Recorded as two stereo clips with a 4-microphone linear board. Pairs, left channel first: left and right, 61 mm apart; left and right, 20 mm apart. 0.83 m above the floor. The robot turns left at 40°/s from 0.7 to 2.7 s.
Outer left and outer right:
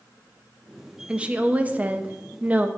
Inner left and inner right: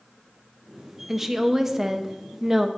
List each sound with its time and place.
1.1 s a woman speaking: 15° right (ahead or behind), 0.6 m; by 2.7 s 25° right (ahead or behind), 0.6 m